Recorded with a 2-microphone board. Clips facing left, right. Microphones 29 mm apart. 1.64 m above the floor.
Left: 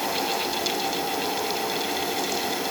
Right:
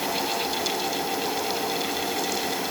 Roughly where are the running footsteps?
No running footsteps in this recording.